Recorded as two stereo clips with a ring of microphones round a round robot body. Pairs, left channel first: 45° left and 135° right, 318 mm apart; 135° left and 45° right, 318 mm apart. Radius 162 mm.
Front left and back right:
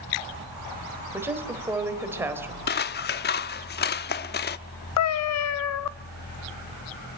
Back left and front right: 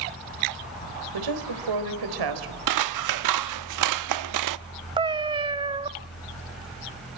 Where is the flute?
No flute in this recording.